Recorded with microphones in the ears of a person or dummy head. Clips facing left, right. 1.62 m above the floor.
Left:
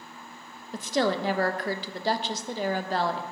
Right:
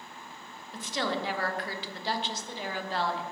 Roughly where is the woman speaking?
Left.